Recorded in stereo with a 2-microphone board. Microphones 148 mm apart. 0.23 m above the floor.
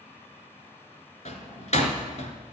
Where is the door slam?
50° left (ahead or behind), 2.0 m.